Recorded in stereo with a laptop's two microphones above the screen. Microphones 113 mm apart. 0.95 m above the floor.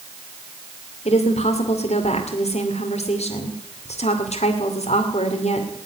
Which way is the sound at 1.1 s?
75° left (ahead or behind).